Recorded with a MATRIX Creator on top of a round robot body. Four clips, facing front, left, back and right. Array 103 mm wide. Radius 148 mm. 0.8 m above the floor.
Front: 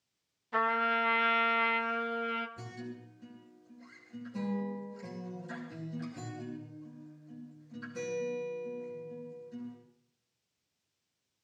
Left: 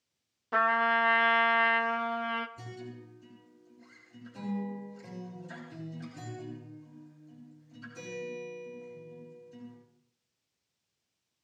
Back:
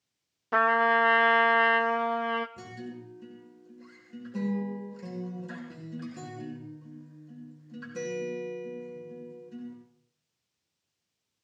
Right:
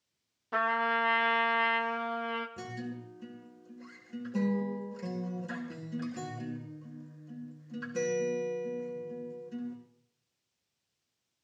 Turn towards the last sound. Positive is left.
turn(degrees=-110)